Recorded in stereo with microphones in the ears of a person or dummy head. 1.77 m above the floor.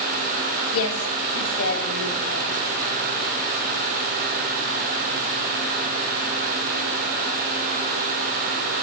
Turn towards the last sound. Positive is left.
turn(degrees=65)  # may be behind; listen again after turning